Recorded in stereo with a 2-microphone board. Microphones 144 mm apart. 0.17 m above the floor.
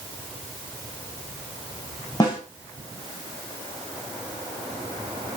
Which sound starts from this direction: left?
A snare drum, at 2.2 s.